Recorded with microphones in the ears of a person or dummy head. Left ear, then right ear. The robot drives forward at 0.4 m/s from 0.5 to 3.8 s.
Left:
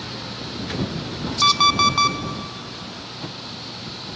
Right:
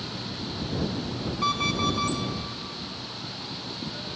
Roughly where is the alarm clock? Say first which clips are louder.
Left 10 dB; left.